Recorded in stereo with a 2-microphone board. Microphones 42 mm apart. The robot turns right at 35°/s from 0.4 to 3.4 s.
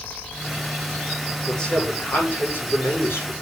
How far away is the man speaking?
About 6.5 m.